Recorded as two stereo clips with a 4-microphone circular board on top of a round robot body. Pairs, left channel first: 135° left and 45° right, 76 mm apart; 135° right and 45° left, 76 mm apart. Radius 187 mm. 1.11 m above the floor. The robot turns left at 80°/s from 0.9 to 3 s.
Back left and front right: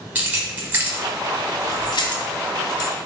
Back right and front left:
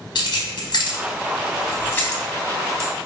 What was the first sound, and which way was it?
Keys jangling, 110° right.